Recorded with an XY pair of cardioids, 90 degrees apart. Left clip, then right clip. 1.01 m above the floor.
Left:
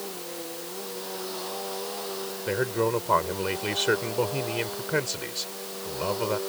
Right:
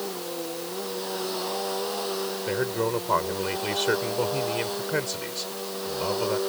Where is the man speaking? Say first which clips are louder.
Left 2 dB; 15° left.